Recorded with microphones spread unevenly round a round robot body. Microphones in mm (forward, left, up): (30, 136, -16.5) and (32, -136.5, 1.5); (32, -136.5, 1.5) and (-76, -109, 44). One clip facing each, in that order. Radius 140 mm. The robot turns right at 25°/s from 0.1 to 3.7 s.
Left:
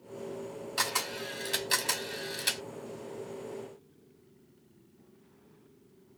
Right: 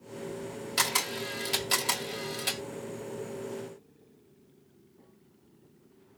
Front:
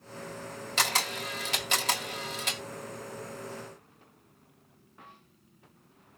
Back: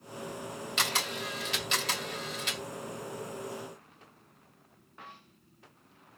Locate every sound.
0.8 s a camera shutter: 40° right, 1.7 m; by 2.6 s 10° left, 1.7 m